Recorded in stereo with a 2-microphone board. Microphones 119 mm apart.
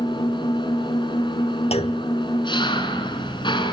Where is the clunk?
60° left (ahead or behind), 0.9 m.